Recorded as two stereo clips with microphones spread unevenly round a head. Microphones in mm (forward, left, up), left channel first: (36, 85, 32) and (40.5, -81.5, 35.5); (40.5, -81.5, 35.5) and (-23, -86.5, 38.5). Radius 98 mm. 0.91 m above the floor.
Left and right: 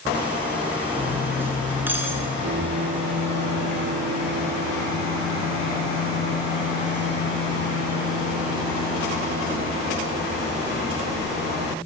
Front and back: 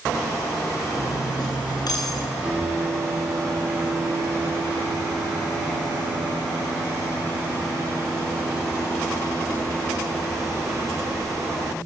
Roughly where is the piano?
Right.